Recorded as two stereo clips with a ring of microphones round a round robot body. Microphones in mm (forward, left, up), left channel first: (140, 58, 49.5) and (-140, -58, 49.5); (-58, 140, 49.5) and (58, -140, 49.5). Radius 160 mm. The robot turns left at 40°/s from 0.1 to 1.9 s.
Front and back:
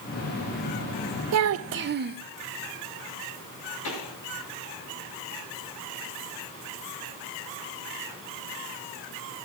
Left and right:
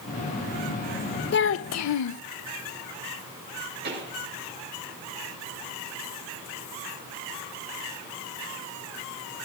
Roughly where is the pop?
Ahead.